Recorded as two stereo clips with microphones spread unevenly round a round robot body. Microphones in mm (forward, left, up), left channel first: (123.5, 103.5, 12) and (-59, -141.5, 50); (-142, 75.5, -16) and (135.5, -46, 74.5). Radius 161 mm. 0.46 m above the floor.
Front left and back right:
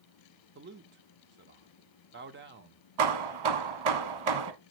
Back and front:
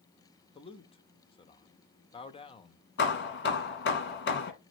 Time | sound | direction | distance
0.6 | a man speaking | 170° right | 0.9 m
3.0 | hammering | 145° right | 1.3 m